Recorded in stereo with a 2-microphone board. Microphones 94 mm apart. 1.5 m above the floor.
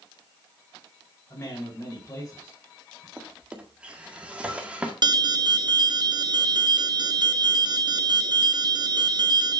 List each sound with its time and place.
1.3 s a man speaking: 30° left (ahead or behind), 5 m
3.2 s a drawer: 15° right (ahead or behind), 1.8 m
5.0 s an alarm: 50° right (ahead or behind), 0.7 m